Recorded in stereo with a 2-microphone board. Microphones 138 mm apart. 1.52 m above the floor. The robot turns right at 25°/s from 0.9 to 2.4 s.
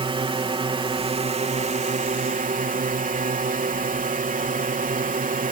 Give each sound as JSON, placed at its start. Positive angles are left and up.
{"t": 0.0, "sound": "a drone", "azimuth_deg": -140}